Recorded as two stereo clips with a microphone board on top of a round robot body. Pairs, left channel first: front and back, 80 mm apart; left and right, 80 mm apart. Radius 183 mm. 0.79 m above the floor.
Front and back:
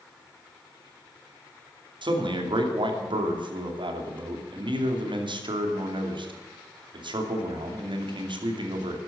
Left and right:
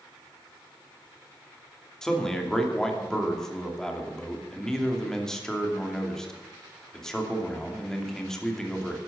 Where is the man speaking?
170° left, 2.5 m.